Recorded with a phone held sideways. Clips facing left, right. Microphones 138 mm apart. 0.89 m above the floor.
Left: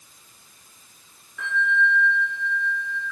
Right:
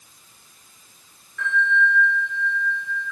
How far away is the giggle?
I don't hear a giggle.